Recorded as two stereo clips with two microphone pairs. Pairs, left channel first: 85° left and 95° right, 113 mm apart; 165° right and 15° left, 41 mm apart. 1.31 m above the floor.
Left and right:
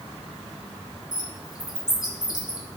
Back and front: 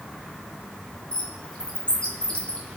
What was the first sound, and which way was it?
A bird, 135° left.